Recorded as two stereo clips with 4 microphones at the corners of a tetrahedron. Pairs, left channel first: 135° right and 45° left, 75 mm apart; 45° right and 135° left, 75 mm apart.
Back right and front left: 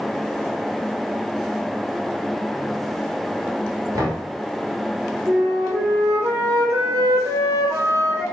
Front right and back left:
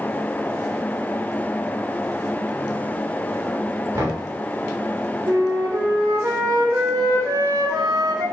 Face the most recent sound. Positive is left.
turn(degrees=90)